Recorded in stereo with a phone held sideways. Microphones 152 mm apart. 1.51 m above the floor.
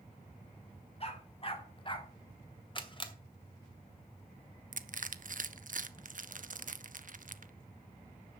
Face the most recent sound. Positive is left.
turn(degrees=-60)  # may be behind; listen again after turning